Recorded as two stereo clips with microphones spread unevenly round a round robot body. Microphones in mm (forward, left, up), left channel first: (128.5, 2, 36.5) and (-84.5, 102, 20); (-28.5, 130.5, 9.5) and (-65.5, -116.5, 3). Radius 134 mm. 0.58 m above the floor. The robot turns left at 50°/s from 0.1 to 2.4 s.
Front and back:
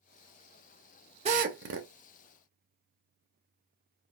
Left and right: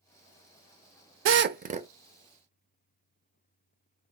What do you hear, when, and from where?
1.2 s a drill: 135° right, 0.7 m; by 1.9 s 170° right, 0.7 m